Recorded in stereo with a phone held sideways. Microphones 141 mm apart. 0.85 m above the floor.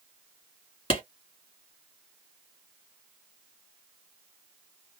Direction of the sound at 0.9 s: 50° left (ahead or behind).